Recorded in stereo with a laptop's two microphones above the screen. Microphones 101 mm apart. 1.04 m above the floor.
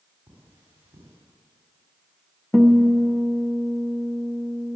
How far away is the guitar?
About 1.2 m.